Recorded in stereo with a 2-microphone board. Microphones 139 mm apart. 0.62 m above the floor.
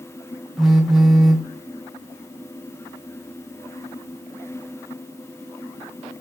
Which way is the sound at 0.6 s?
Centre (ahead or behind).